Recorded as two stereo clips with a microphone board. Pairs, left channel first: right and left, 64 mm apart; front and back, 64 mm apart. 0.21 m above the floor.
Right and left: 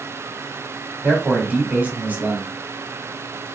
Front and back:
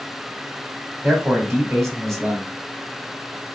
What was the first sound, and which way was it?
A man speaking, 85° left.